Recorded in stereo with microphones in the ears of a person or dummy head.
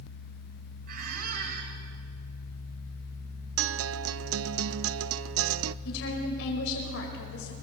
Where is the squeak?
55° right (ahead or behind), 3 m.